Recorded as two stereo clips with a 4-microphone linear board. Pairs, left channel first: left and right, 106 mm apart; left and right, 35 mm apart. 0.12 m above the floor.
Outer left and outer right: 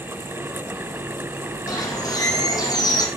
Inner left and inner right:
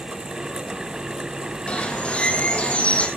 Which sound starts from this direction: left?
A bird, at 1.7 s.